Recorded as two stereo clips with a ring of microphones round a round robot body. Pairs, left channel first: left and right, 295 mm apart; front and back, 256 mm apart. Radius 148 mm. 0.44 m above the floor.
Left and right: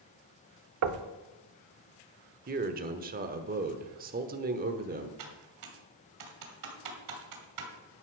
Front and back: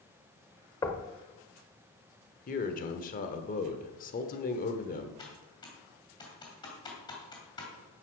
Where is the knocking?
75° right, 0.8 m.